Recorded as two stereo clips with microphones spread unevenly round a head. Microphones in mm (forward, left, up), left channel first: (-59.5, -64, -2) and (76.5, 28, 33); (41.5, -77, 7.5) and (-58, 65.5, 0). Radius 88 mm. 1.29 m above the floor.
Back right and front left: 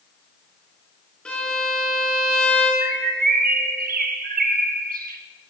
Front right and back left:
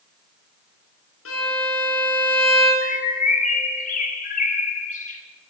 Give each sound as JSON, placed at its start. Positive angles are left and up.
{"t": 1.2, "sound": "a violin", "azimuth_deg": -60, "distance_m": 6.5}
{"t": 2.8, "sound": "a bird", "azimuth_deg": -5, "distance_m": 2.0}